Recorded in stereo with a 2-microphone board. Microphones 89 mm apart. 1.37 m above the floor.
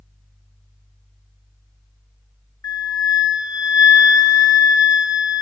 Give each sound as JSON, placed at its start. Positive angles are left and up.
{"t": 2.6, "sound": "a flute", "side_deg": 45, "distance_m": 1.1}